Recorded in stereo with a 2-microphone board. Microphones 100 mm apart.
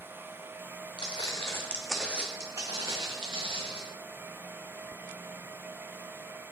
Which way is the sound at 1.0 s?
50° left (ahead or behind).